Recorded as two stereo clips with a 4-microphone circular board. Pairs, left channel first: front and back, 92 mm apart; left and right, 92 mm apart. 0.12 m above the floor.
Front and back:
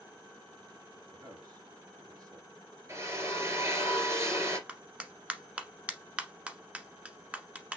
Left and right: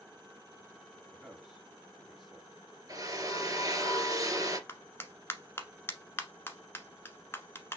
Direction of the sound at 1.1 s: 175° right.